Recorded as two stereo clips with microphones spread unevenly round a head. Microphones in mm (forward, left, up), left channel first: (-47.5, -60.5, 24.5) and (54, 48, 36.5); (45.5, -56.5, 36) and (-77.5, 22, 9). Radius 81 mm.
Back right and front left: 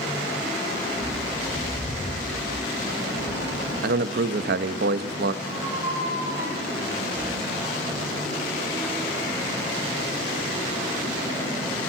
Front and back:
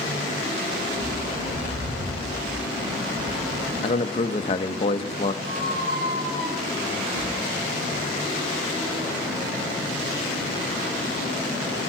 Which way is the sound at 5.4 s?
115° left.